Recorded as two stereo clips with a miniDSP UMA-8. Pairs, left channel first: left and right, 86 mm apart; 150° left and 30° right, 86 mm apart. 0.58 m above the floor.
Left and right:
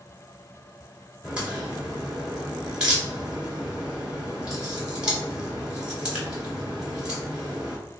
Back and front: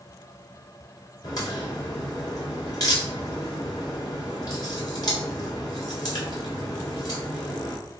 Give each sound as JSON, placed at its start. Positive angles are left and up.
{"t": 1.2, "sound": "a crack", "azimuth_deg": -170, "distance_m": 2.0}